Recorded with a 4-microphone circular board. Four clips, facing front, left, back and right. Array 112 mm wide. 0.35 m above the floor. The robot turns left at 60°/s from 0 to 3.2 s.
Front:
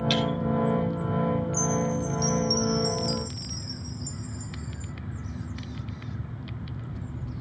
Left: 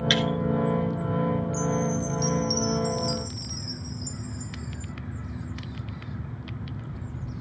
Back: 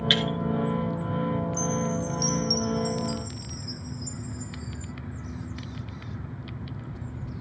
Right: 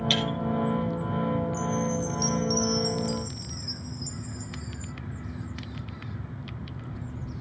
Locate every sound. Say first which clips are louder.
0.1 s breaking glass: left 5 dB, front 1 dB; 120° left, 1.9 m; by 0.3 s 110° left, 1.9 m
1.5 s a chime: left 2 dB, front 1 dB; 100° right, 0.6 m; by 4.9 s 165° left, 0.6 m